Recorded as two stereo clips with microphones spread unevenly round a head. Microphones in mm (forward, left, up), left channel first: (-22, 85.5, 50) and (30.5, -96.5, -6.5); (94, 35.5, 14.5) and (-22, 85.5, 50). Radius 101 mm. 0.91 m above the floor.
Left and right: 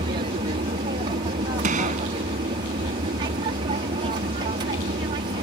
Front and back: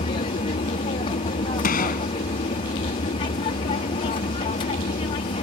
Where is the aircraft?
30° right.